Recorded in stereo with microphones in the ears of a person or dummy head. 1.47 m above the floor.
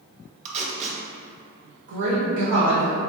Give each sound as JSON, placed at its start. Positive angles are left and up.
{"t": 0.5, "sound": "tape being pulled", "side_deg": -30, "distance_m": 0.6}
{"t": 1.9, "sound": "a woman speaking", "side_deg": -70, "distance_m": 1.0}